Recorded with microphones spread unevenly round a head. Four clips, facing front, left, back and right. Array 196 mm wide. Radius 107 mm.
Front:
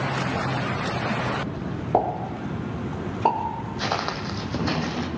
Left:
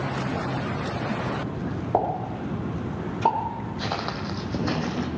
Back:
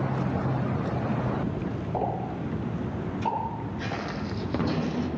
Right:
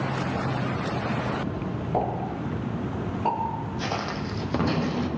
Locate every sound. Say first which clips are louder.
1.9 s a pop: left 3 dB, front 7 dB; 25° left, 4 m
3.8 s footsteps: left 1 dB, front 7 dB; 10° left, 2.5 m; by 5.1 s 40° left, 3 m